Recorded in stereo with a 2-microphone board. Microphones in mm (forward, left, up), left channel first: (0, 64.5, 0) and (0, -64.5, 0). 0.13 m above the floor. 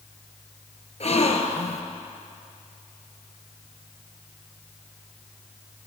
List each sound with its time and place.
1.0 s a gasp: 55° left (ahead or behind), 1.2 m